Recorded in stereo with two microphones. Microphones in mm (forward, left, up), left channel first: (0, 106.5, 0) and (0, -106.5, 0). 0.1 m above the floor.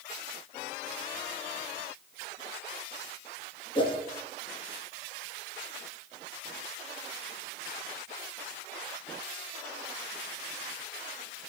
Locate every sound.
3.8 s a whoosh: 25° left (ahead or behind), 0.7 m